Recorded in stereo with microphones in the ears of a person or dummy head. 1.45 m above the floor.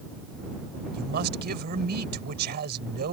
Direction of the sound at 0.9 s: 50° right (ahead or behind).